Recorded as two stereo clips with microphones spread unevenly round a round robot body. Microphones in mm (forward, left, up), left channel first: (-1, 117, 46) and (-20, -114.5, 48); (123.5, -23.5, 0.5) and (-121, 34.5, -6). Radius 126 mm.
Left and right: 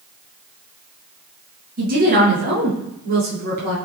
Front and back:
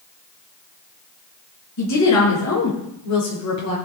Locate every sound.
1.8 s a woman speaking: 40° right, 7 m